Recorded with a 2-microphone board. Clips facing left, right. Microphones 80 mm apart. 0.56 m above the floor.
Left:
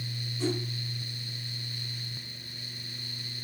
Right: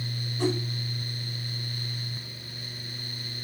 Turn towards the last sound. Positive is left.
turn(degrees=-60)  # may be behind; listen again after turning